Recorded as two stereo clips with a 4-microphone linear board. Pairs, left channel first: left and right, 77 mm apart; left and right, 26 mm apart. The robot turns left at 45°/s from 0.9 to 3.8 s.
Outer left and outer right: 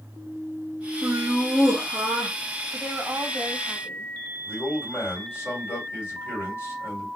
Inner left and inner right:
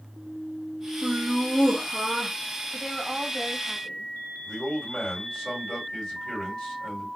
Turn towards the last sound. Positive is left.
turn(degrees=35)  # may be behind; listen again after turning